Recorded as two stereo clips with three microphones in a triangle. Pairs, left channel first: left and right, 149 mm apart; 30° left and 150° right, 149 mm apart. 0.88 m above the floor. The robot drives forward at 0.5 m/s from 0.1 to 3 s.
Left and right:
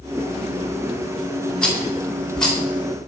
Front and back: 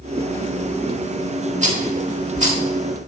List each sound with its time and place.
1.6 s a rattle: 175° left, 2.5 m